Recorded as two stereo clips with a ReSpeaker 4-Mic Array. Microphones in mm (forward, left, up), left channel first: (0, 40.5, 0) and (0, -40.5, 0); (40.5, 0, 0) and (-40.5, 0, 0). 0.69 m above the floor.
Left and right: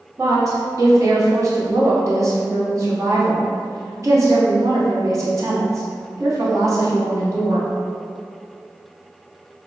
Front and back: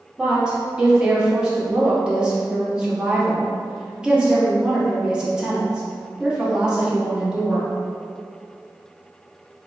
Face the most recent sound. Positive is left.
turn(degrees=-105)